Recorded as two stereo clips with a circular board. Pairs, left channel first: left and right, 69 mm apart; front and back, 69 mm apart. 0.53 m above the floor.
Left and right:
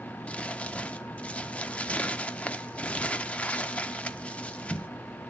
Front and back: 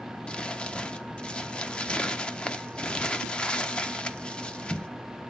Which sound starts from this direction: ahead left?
Crumpling, at 0.3 s.